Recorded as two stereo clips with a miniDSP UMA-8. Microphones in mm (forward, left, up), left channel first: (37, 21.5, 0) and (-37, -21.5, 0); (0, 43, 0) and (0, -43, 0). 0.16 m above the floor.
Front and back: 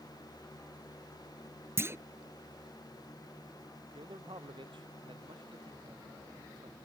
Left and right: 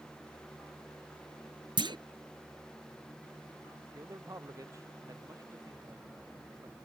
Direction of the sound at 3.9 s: 140° right.